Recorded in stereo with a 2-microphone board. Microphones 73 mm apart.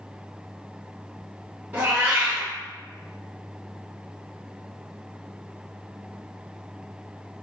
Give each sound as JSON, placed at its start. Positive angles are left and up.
{"t": 1.7, "sound": "a cat meowing", "side_deg": -20, "distance_m": 1.2}